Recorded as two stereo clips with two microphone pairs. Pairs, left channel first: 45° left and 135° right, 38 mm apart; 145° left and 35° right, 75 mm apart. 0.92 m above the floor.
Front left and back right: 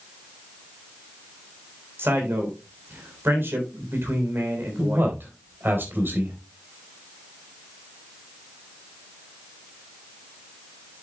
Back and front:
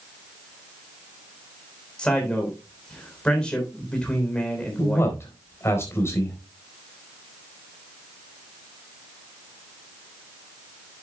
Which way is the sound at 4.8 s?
160° right.